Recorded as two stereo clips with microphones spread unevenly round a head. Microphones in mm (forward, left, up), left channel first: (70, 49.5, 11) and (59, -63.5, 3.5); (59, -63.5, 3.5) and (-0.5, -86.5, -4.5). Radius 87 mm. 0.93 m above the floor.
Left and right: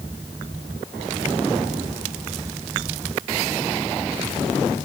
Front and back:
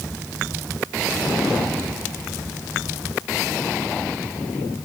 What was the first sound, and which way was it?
Only background noise.